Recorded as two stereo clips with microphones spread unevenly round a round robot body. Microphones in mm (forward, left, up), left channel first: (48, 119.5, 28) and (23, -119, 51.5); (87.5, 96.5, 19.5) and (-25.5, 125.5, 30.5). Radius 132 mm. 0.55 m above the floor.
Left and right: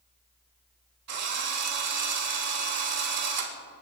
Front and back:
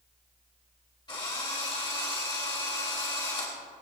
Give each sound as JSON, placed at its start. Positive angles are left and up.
{"t": 1.1, "sound": "a drill", "azimuth_deg": -75, "distance_m": 3.0}